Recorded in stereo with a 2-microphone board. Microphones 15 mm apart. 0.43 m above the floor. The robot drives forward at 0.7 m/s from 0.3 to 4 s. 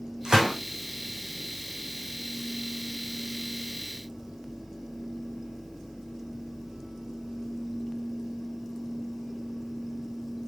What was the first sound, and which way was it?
A gunshot, 65° right (ahead or behind).